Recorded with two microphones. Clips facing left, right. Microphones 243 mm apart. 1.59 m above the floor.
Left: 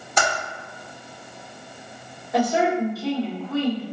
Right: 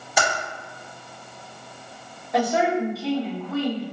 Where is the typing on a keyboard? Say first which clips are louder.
Even; 10° right (ahead or behind), 1.4 m.